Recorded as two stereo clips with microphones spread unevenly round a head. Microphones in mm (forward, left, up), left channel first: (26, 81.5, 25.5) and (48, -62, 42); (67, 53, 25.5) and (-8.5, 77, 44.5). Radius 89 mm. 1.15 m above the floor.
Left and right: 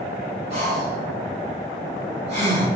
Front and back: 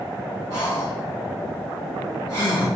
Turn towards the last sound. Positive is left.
turn(degrees=-135)